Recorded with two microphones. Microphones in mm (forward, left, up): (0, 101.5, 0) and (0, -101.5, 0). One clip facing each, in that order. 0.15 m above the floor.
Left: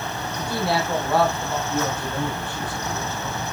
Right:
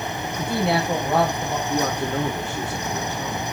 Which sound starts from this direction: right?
A man speaking, at 1.7 s.